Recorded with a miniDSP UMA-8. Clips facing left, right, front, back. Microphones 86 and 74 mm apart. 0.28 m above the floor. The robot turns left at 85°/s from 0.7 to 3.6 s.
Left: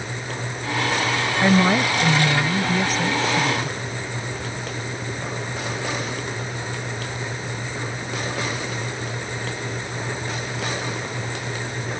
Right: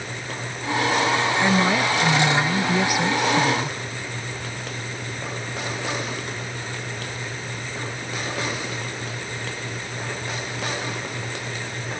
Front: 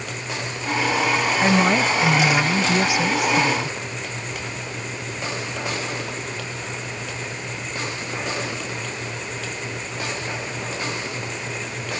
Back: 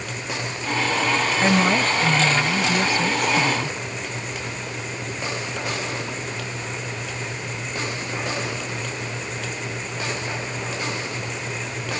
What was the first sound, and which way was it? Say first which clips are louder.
A woman speaking: left 6 dB, front 1 dB; 80° left.